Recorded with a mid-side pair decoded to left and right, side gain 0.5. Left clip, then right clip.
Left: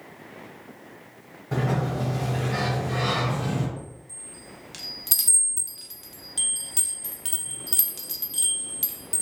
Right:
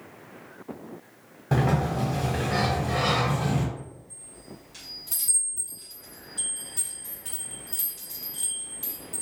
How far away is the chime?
About 0.7 m.